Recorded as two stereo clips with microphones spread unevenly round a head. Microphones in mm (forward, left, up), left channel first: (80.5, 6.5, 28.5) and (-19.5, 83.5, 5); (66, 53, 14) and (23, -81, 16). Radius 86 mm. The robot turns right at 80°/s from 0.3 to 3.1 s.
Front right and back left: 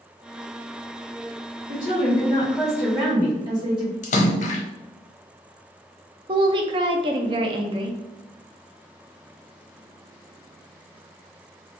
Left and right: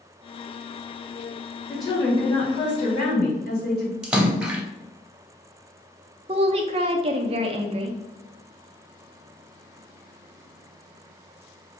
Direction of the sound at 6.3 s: 165° right.